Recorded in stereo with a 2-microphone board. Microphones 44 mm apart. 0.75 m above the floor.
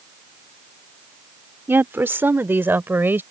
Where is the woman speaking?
60° right (ahead or behind); by 3.2 s 55° right (ahead or behind).